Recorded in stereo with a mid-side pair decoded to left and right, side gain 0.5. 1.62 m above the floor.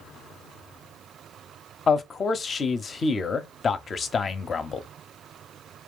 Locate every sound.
1.9 s a man speaking: 40° left, 0.7 m